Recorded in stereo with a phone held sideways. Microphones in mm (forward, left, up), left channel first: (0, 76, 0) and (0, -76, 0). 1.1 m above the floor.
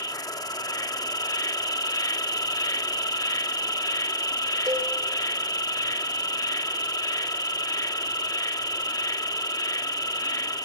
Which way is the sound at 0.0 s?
25° left (ahead or behind).